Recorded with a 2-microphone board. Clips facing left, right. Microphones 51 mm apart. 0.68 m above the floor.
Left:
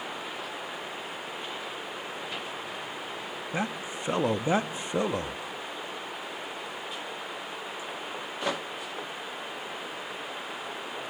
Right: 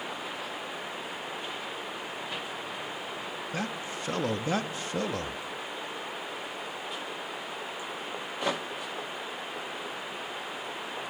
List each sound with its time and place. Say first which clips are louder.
3.5 s a man speaking: left 4 dB; 20° left (ahead or behind), 0.7 m